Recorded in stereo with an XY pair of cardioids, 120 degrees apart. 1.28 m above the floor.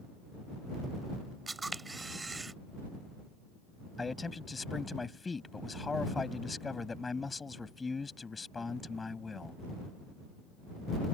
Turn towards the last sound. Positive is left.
turn(degrees=20)